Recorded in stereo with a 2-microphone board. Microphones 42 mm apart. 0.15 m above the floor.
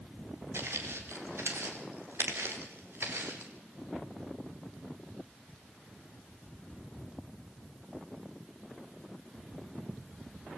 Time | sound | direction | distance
0.5 | footsteps | 80° right | 7 m